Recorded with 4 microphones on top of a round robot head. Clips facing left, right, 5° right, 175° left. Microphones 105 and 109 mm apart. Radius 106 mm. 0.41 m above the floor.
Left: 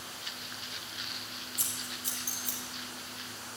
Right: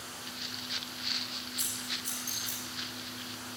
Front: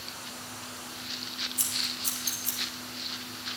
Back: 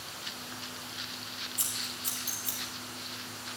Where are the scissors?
40° left, 2.5 m.